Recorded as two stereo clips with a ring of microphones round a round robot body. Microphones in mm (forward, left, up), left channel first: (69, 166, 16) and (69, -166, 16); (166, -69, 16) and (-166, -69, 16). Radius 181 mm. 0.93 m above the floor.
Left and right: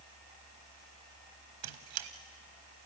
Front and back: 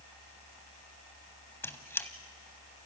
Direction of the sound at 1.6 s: 85° right.